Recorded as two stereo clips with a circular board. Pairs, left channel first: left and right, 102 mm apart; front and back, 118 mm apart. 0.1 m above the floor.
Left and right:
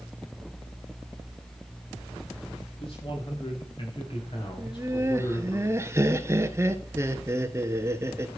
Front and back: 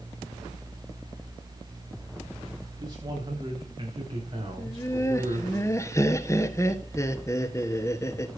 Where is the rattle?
No rattle in this recording.